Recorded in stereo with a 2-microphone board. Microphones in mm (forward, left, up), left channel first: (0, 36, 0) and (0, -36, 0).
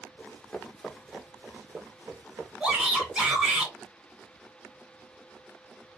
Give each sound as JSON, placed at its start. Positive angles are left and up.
{"t": 0.2, "sound": "running footsteps", "side_deg": 30, "distance_m": 0.9}
{"t": 2.6, "sound": "a shout", "side_deg": -10, "distance_m": 1.1}